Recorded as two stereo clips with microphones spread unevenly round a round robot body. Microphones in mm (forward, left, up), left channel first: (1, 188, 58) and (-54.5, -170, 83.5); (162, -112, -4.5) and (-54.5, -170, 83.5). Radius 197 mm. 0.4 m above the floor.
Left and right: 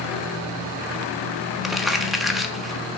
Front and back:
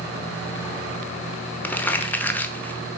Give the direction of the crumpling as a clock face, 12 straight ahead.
12 o'clock.